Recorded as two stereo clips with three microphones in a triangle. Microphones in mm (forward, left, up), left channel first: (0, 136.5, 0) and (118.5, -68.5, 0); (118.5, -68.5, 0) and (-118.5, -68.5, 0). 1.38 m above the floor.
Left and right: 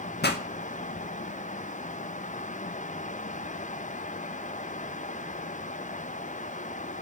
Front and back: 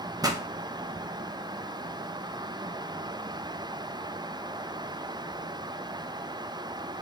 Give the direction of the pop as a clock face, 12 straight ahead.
8 o'clock.